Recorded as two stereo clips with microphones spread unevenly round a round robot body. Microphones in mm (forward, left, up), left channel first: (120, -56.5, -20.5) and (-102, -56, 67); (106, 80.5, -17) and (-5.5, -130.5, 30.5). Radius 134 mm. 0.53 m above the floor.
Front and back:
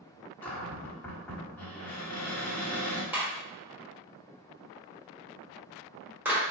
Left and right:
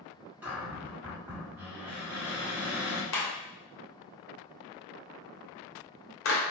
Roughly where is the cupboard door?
Ahead.